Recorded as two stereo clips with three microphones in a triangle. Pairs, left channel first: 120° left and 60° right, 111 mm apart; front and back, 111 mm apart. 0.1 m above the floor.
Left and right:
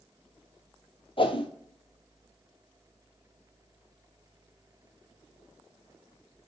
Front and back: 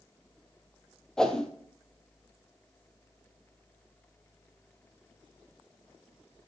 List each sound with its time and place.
1.2 s a whoosh: 85° left, 0.9 m